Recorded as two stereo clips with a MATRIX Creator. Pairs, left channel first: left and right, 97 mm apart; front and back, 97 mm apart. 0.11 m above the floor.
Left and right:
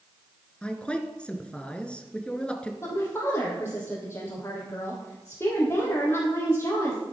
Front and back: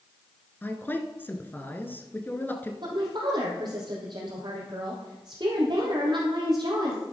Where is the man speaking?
30° left, 1.2 m.